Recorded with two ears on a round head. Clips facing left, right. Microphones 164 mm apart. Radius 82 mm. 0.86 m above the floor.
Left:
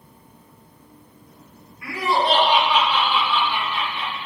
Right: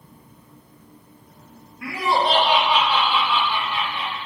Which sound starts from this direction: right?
Laughter, at 1.8 s.